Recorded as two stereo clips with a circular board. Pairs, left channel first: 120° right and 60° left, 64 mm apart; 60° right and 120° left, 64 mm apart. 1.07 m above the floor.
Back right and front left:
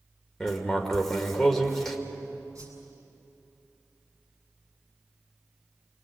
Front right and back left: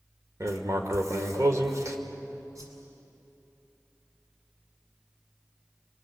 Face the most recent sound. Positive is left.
turn(degrees=95)